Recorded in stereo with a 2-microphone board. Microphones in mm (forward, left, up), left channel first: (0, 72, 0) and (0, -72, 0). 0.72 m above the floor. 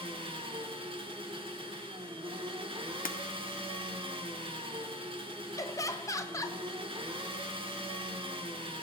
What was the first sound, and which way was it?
An engine running, 35° right (ahead or behind).